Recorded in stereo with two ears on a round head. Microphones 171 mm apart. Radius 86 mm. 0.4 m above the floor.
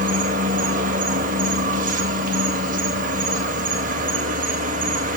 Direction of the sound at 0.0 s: 40° right (ahead or behind).